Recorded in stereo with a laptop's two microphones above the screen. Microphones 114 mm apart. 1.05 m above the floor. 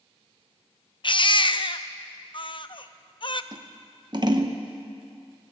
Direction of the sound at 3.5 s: 40° right (ahead or behind).